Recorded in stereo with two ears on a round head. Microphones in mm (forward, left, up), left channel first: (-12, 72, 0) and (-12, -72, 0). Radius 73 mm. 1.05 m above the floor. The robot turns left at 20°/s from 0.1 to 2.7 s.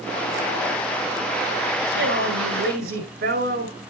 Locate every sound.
1.9 s a woman speaking: 80° right, 5 m; by 3.8 s 65° right (ahead or behind), 5 m